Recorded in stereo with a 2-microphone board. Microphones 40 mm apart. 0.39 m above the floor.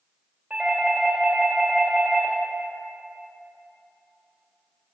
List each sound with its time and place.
0.5 s a doorbell: 15° right (ahead or behind), 1.9 m